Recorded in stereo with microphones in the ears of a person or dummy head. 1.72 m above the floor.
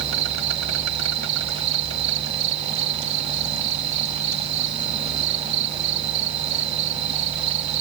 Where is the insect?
85° right.